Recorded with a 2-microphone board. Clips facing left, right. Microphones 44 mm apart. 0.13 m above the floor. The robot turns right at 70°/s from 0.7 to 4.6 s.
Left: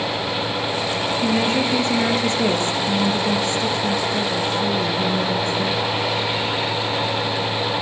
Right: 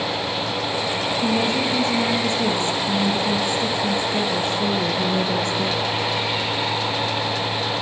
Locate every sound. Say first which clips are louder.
1.2 s a woman speaking: left 2 dB; 30° left, 2.5 m; by 5.8 s 90° right, 2.5 m